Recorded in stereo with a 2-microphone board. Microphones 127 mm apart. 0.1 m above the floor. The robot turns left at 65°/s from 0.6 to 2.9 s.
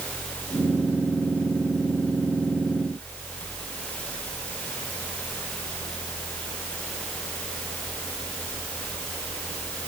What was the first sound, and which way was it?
Only background noise.